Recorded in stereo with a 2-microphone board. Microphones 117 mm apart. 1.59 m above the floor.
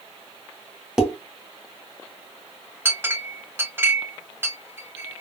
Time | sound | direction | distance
1.0 | dishes clattering | 5° right (ahead or behind) | 1.1 m
2.9 | a clink | 20° right (ahead or behind) | 1.0 m